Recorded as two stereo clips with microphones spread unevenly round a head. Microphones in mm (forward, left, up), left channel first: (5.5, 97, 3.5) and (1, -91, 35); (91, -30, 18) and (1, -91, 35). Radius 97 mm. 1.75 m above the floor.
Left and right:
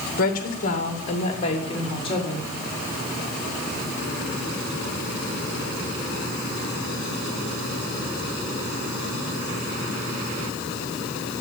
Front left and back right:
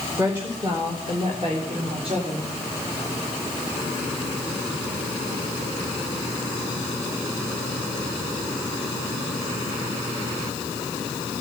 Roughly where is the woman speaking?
Behind left.